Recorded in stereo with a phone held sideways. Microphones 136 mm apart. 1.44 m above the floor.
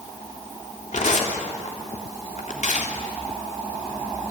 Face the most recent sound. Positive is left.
turn(degrees=65)  # may be behind; listen again after turning